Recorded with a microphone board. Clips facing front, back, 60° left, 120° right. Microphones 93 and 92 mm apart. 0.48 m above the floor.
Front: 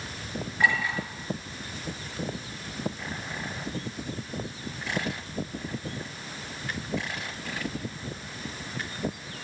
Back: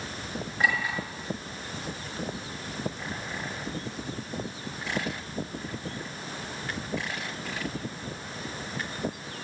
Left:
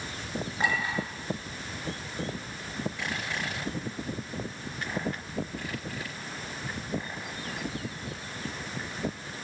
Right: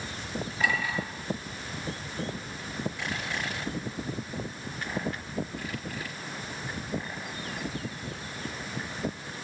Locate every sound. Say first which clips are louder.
0.6 s a clink: front 2 dB, even; 110° left, 6 m